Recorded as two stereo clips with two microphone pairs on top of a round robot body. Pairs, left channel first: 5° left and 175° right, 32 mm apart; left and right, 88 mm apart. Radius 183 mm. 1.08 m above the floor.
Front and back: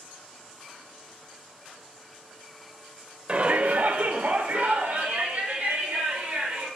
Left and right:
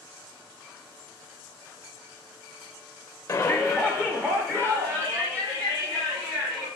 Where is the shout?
155° left, 0.9 m; by 6.7 s 135° right, 4 m.